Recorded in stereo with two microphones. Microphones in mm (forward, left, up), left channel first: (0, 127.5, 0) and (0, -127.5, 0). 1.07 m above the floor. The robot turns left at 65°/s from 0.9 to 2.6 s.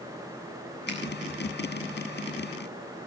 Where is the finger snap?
45° right (ahead or behind), 8 m; by 1.0 s 55° right (ahead or behind), 8 m.